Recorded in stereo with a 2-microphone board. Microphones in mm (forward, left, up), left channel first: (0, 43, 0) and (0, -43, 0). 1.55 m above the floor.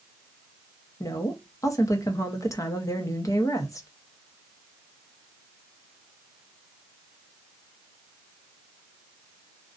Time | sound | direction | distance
1.0 | a woman speaking | 40° left (ahead or behind) | 0.7 m